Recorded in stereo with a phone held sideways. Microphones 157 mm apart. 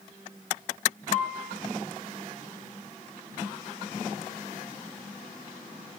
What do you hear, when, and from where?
1.1 s a piano: 55° left (ahead or behind), 3.5 m